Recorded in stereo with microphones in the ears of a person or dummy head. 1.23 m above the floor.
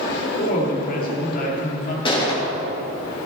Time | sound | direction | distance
0.4 | a woman speaking | 50° left (ahead or behind) | 2.5 m
2.0 | a gunshot | 25° left (ahead or behind) | 2.5 m